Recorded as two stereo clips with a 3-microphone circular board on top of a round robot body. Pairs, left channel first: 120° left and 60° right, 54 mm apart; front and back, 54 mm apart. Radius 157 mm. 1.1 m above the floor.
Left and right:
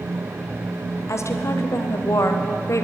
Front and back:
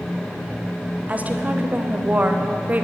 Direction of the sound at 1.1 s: 125° left.